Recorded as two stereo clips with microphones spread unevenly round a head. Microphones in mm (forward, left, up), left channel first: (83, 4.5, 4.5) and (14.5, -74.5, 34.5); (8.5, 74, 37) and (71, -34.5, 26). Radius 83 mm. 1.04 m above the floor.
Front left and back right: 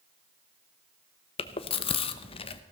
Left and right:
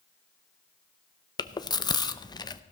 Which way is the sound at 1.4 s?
60° left.